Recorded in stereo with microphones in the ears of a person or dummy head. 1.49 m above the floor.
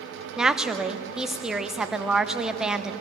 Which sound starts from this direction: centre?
A woman speaking, at 0.4 s.